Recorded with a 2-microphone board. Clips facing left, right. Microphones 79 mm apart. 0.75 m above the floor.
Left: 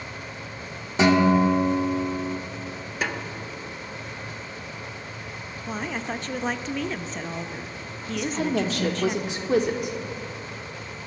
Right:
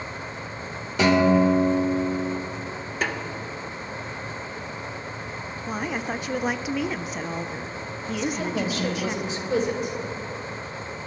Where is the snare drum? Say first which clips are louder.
Right 1 dB; 5° left (ahead or behind), 1.3 m.